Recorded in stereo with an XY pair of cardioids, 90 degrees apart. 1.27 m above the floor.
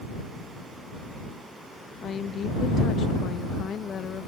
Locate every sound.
2.0 s a woman speaking: 60° left